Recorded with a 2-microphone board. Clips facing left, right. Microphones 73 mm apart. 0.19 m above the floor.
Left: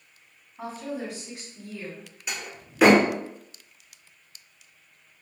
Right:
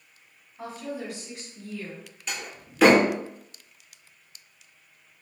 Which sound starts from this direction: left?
A woman speaking, at 0.6 s.